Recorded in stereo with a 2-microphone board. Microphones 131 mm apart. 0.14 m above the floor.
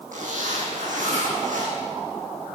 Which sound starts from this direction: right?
A zipper, at 0.1 s.